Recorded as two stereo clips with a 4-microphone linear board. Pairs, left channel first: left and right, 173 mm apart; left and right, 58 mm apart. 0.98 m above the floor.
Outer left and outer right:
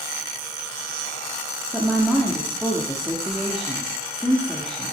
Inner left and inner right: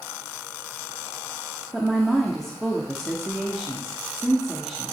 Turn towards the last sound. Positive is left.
turn(degrees=5)  # may be behind; listen again after turning